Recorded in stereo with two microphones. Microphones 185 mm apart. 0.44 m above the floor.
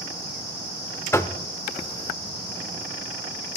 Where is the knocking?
15° left (ahead or behind), 0.6 m.